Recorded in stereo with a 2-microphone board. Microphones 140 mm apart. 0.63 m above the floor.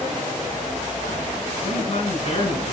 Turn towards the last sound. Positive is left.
turn(degrees=55)  # may be behind; listen again after turning